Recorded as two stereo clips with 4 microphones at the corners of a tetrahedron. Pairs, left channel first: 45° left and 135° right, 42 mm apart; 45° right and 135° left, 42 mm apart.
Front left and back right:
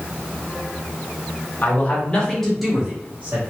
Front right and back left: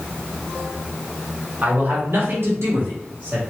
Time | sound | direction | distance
1.6 | a man speaking | 90° left | 1.0 m